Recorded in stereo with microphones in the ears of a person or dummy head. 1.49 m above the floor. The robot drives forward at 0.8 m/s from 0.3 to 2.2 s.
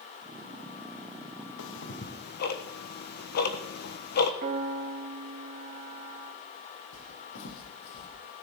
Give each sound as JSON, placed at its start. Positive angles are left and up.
{"t": 1.6, "sound": "ticking", "side_deg": 70, "distance_m": 1.0}
{"t": 4.4, "sound": "a piano", "side_deg": -35, "distance_m": 2.5}
{"t": 6.9, "sound": "footsteps", "side_deg": 70, "distance_m": 4.0}